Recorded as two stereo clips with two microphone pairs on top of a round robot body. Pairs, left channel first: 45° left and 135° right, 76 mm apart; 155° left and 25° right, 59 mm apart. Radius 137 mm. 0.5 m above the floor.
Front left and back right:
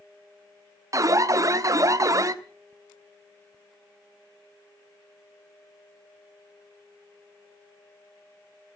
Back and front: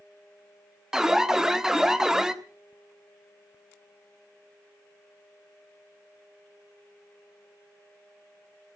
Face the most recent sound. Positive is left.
turn(degrees=-105)